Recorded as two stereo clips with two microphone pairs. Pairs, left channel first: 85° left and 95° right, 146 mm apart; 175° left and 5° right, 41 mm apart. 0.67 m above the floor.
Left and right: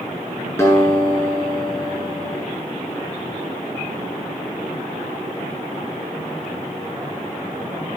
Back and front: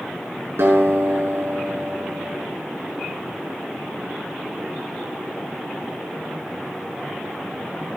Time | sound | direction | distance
0.6 | a guitar | 15° left | 8 m